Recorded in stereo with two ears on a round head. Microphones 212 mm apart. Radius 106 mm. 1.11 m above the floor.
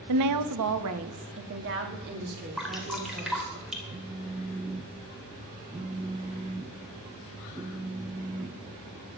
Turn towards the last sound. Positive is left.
turn(degrees=-15)  # may be behind; listen again after turning